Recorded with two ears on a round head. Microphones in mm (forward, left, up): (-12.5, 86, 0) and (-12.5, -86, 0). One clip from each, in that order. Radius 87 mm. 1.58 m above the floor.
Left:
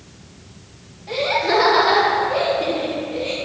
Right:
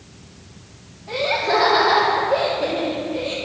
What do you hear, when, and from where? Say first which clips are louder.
1.1 s laughter: left 1 dB; 60° left (ahead or behind), 4 m